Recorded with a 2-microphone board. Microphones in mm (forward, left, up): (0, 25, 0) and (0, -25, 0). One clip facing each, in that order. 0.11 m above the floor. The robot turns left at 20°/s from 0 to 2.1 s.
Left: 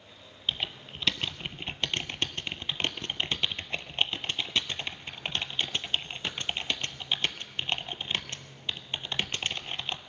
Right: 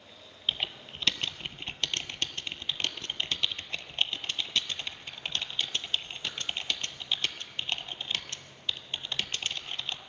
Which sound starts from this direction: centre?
Typing on a keyboard, at 0.5 s.